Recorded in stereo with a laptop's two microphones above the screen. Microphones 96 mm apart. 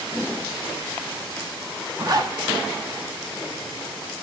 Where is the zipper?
45° right (ahead or behind), 1.2 m.